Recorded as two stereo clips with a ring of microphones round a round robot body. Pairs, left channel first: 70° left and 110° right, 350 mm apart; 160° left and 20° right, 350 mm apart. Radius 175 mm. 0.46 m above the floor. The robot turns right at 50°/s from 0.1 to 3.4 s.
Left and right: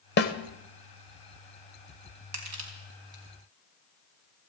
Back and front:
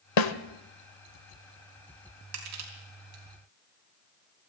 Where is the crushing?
75° right, 4 m; by 3.2 s 30° right, 4 m.